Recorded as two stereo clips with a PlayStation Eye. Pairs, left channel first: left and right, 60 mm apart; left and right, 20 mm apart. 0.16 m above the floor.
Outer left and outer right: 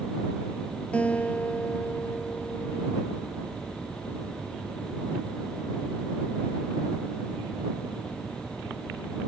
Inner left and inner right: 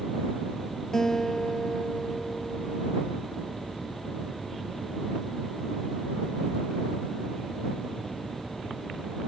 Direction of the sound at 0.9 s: 25° left (ahead or behind).